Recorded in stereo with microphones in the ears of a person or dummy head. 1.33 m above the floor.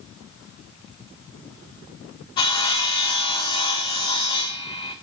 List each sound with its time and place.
2.4 s sawing: 25° left (ahead or behind), 2 m